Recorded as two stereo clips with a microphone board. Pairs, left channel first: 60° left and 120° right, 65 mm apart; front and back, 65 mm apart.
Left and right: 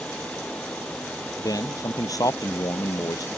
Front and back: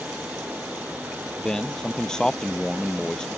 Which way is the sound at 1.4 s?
80° left.